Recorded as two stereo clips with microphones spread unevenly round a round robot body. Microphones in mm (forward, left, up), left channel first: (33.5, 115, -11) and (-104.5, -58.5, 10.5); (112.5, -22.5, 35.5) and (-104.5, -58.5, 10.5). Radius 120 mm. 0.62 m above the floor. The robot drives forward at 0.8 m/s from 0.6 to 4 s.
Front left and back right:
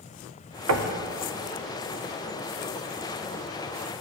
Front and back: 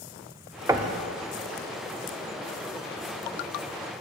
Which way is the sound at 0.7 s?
95° right.